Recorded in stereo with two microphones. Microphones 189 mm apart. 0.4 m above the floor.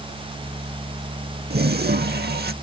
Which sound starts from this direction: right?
A toilet flushing, at 1.5 s.